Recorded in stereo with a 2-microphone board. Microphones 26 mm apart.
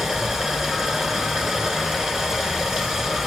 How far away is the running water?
About 1.1 m.